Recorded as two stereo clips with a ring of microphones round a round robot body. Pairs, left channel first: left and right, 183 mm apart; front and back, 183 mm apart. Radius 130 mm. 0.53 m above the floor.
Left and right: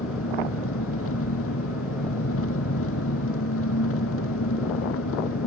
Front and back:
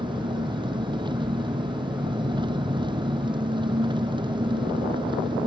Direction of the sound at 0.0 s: 115° left.